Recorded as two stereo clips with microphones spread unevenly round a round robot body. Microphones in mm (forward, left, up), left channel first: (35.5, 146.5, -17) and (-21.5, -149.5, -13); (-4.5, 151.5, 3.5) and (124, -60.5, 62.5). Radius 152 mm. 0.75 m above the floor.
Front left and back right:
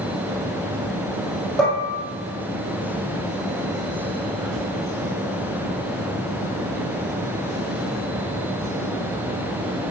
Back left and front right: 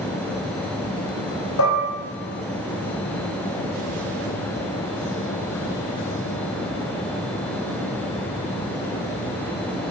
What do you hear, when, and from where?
1.6 s dishes clattering: 165° left, 2 m